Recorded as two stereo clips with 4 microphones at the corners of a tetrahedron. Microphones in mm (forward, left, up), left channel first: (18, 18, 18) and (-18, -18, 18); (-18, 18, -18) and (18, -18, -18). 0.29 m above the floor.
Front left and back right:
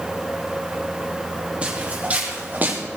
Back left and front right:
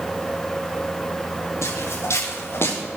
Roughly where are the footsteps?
Behind.